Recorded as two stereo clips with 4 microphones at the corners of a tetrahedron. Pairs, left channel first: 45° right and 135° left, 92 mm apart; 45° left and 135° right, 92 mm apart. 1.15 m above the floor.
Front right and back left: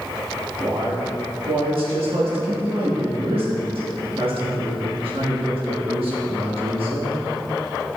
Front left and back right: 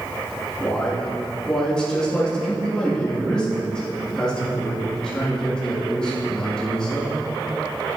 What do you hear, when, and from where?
0.6 s a man speaking: 125° left, 1.6 m